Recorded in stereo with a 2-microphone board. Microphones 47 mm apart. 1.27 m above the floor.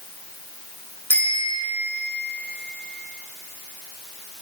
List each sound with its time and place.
1.1 s a bicycle bell: 55° left (ahead or behind), 9.5 m